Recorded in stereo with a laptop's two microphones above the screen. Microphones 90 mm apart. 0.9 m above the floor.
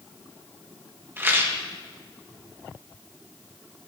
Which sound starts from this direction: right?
A rattle, at 1.2 s.